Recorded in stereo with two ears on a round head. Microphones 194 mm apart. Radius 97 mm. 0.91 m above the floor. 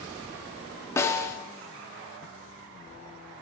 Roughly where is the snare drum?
Centre.